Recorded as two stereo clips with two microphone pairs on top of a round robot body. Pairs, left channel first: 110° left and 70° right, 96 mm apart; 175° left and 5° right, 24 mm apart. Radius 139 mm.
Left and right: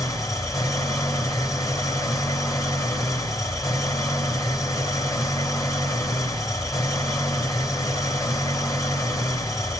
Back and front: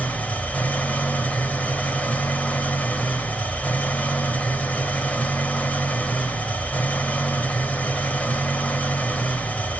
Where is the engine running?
170° left, 1.7 m.